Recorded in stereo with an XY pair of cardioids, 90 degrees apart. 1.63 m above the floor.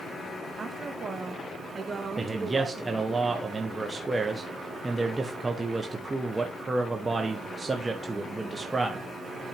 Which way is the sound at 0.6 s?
35° right.